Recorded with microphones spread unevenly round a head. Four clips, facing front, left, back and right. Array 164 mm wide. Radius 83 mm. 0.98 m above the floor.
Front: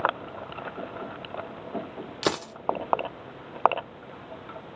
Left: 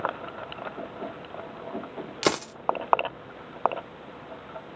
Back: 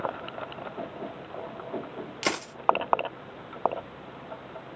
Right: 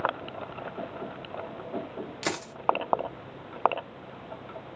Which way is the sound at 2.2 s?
70° left.